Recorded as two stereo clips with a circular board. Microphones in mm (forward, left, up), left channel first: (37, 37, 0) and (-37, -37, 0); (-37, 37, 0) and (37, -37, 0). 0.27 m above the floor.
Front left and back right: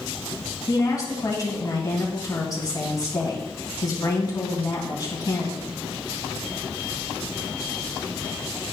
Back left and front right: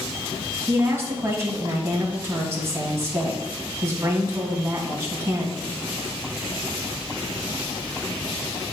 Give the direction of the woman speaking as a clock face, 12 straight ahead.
12 o'clock.